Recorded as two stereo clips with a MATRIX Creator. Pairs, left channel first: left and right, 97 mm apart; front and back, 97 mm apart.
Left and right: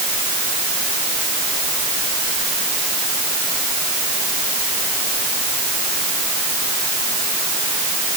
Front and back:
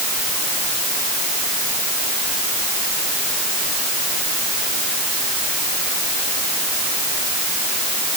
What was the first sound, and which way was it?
Only background noise.